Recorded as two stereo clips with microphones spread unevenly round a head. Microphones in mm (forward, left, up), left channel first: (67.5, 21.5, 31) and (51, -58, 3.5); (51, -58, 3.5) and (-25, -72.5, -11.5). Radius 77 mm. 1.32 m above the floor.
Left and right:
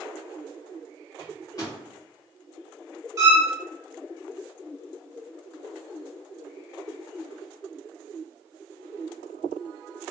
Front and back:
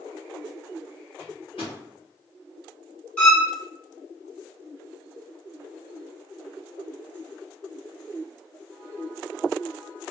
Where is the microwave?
35° left, 1.2 m.